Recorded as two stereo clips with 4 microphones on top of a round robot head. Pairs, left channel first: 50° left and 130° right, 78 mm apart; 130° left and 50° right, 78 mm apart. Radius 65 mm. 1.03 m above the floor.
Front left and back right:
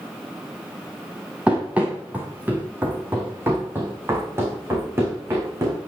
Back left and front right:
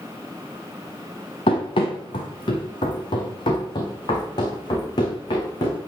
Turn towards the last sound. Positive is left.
turn(degrees=170)